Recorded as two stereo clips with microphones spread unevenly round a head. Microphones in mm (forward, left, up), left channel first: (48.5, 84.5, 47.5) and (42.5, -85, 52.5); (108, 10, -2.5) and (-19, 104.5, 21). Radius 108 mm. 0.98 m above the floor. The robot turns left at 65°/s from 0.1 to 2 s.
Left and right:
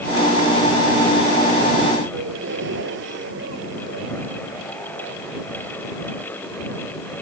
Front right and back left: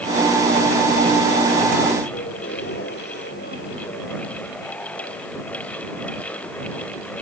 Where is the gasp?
85° right.